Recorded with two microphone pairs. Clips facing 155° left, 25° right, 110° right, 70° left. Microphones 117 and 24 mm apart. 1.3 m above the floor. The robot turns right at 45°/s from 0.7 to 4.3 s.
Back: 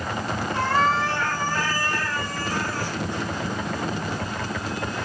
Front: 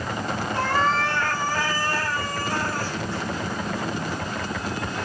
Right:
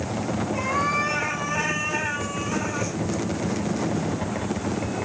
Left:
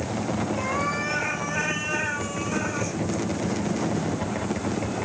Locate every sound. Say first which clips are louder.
0.5 s a cat meowing: back 1 dB, right 3 dB; 145° right, 2 m; by 3.0 s 45° right, 2 m